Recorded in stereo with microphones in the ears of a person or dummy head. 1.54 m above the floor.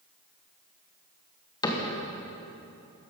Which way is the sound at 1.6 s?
20° left (ahead or behind).